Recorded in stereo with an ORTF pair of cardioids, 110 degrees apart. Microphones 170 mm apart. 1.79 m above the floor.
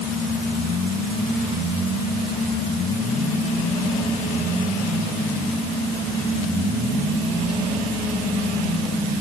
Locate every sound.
Only background noise.